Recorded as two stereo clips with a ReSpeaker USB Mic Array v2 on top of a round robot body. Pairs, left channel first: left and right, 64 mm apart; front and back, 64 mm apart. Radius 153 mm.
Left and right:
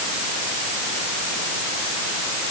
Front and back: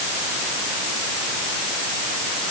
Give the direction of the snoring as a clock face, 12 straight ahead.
I don't hear snoring.